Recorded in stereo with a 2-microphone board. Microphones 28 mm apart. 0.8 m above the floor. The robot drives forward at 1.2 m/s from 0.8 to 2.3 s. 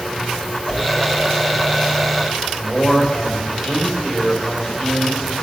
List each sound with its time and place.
0.7 s a whoosh: 20° left (ahead or behind), 2.5 m
2.6 s a man speaking: 30° left (ahead or behind), 4 m